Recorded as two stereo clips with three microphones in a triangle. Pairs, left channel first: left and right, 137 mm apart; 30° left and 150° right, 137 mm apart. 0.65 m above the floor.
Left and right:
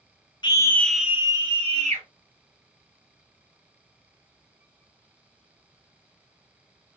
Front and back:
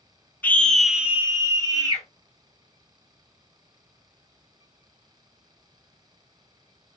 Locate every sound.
0.4 s a scream: 95° left, 0.6 m; by 2.0 s 100° right, 0.9 m